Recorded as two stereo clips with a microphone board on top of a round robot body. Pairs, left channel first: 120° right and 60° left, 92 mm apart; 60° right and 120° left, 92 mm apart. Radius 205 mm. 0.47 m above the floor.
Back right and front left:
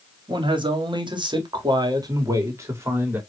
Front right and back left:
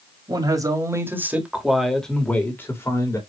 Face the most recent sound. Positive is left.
turn(degrees=-5)